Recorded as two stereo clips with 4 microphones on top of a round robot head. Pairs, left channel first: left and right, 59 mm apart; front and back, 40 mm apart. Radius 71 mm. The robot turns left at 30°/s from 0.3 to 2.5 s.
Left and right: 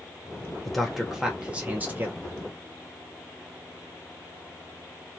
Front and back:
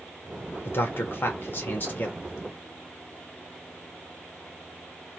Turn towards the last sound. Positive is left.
turn(degrees=-50)